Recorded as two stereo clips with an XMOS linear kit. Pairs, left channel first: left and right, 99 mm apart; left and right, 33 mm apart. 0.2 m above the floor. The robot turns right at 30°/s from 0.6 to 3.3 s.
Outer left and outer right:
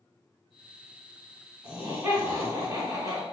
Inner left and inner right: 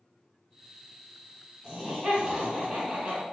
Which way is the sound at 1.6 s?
170° right.